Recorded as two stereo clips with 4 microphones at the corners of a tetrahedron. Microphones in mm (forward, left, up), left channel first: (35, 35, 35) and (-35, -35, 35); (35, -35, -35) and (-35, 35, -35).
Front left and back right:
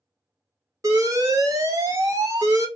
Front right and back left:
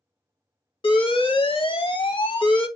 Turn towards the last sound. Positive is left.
turn(degrees=-80)